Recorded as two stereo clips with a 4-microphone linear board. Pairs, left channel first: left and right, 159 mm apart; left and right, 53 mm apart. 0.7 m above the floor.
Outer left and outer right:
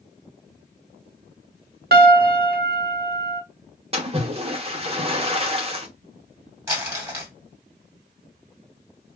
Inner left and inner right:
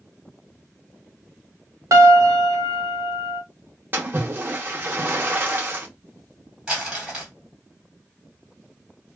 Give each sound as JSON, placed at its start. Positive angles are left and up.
{"t": 1.9, "sound": "a piano", "side_deg": -75, "distance_m": 0.7}
{"t": 3.9, "sound": "a splash", "side_deg": -35, "distance_m": 0.8}
{"t": 6.7, "sound": "crumpling", "side_deg": -15, "distance_m": 1.6}